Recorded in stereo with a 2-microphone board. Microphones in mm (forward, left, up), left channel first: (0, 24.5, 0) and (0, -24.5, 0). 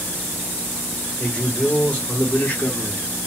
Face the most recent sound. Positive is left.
turn(degrees=45)  # may be behind; listen again after turning